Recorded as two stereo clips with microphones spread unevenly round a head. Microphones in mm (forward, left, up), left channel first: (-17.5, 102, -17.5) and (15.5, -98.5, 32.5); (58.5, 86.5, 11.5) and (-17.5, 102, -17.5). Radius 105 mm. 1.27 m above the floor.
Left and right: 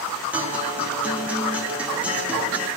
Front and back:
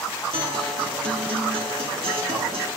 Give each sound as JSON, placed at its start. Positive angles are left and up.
{"t": 0.3, "sound": "a guitar", "azimuth_deg": -160, "distance_m": 1.8}